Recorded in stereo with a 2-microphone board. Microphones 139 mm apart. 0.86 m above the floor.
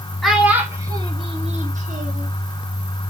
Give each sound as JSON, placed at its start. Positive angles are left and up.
{"t": 0.2, "sound": "a child speaking", "side_deg": 0, "distance_m": 1.2}